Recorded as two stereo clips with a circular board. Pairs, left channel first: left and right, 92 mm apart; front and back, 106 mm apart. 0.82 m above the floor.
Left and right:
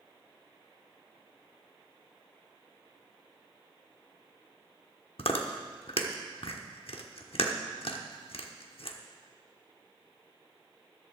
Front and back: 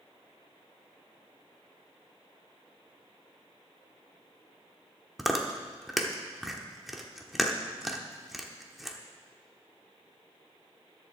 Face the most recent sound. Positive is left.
turn(degrees=95)